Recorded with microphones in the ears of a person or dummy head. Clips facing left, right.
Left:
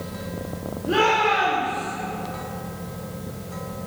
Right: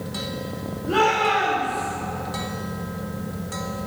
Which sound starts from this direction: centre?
A shout, at 0.9 s.